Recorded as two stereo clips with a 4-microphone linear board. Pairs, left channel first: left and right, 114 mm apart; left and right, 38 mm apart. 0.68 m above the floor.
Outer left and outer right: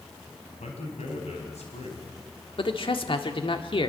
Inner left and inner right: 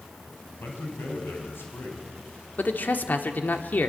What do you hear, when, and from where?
0.6 s a man speaking: 80° left, 4 m
2.6 s a man speaking: 55° left (ahead or behind), 1.7 m